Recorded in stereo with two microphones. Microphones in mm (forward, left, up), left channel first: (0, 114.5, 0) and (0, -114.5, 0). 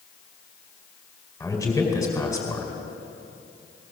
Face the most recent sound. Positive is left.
turn(degrees=15)  # may be behind; listen again after turning